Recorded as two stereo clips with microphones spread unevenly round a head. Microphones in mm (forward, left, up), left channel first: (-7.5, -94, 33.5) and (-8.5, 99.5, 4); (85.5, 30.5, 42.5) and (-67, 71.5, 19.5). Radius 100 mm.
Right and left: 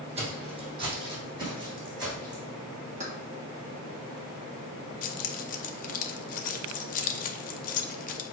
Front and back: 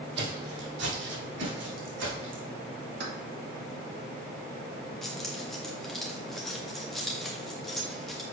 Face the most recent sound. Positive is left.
turn(degrees=-95)